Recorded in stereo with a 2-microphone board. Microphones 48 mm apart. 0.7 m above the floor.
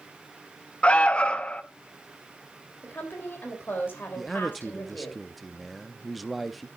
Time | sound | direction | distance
0.8 | an alarm | 25° left (ahead or behind) | 0.7 m
2.8 | a woman speaking | 45° left (ahead or behind) | 3.5 m
4.2 | a man speaking | centre (ahead or behind) | 0.7 m